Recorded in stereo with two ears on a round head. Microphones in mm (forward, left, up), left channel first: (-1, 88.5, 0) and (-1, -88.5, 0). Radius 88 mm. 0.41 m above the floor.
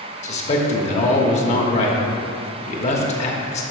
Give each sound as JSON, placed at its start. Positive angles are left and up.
{"t": 0.2, "sound": "a man speaking", "side_deg": 35, "distance_m": 0.9}